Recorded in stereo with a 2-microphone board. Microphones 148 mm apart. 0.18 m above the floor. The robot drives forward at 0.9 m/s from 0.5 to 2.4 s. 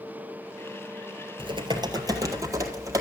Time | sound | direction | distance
1.4 | typing on a keyboard | 40° right (ahead or behind) | 1.1 m